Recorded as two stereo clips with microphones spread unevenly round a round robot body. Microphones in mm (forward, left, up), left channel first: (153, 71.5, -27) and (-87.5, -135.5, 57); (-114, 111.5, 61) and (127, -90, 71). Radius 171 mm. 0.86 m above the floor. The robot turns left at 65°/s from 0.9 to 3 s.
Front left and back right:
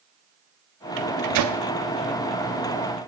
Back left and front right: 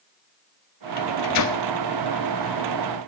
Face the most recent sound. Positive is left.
turn(degrees=65)